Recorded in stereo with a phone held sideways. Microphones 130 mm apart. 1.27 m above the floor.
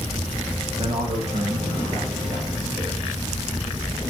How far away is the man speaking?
About 1.5 m.